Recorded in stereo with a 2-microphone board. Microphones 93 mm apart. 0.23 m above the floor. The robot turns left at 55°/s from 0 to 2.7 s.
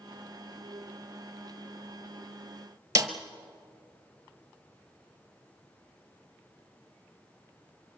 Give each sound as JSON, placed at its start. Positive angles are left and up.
{"t": 3.0, "sound": "a snare drum", "side_deg": -30, "distance_m": 1.3}